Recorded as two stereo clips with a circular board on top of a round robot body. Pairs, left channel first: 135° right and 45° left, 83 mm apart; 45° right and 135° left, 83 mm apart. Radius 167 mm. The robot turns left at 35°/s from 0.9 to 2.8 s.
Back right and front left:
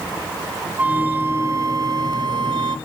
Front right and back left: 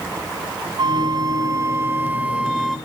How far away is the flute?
About 0.9 m.